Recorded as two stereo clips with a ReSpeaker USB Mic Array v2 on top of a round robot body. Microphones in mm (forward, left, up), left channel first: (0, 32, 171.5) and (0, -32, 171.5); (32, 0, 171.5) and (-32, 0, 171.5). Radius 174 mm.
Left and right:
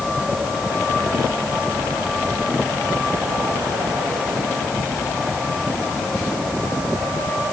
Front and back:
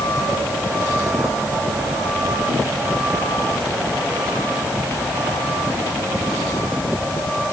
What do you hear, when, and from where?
Only background noise.